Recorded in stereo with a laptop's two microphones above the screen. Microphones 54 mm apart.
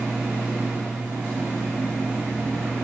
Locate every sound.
0.0 s a machine running: 25° right (ahead or behind), 2 m